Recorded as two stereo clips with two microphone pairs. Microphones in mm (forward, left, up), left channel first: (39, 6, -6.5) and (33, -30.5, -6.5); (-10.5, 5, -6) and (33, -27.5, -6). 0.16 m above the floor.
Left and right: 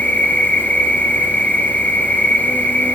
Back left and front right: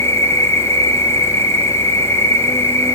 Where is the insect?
125° left, 0.9 m.